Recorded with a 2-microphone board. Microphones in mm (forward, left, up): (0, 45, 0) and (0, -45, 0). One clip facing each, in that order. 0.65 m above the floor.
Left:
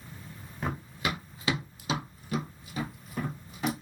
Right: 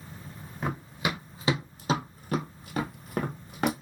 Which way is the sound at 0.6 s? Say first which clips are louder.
Right 2 dB; 10° right (ahead or behind).